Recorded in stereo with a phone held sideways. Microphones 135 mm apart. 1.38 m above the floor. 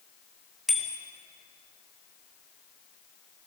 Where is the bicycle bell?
Centre (ahead or behind), 2.5 m.